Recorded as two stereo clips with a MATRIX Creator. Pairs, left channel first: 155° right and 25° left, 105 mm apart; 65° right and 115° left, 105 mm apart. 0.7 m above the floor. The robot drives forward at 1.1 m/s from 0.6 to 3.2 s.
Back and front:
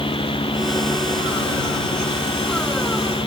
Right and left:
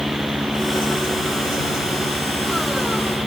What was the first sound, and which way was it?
Only background noise.